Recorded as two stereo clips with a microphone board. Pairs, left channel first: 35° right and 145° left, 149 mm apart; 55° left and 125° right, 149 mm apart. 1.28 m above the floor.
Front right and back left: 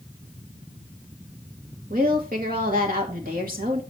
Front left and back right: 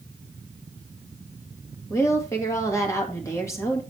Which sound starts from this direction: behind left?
A woman speaking, at 1.9 s.